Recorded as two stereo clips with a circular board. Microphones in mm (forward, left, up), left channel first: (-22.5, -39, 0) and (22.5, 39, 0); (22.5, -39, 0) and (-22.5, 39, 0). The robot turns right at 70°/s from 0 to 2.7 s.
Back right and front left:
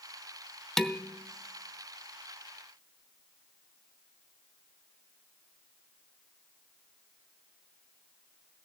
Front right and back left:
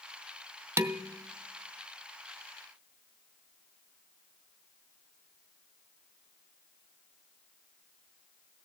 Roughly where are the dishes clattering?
Behind left.